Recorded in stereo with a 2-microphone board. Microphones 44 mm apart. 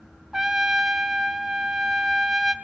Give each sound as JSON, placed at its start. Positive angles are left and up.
{"t": 0.3, "sound": "a trumpet", "side_deg": -10, "distance_m": 0.7}